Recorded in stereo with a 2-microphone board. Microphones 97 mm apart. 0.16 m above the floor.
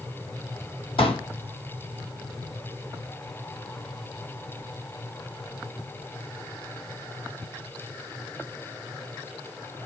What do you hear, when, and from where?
1.0 s a pop: 70° left (ahead or behind), 1.2 m